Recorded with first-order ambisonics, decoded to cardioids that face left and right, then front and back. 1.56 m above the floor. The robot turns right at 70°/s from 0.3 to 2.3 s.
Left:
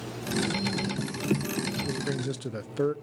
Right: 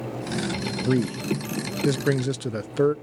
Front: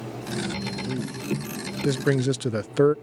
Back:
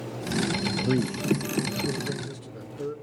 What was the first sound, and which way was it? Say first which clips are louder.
A man speaking: right 5 dB, back 4 dB; 120° right.